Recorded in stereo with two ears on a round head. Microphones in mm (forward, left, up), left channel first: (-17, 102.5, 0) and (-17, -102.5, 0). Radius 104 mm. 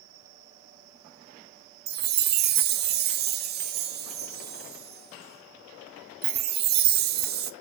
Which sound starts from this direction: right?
A chime, at 1.9 s.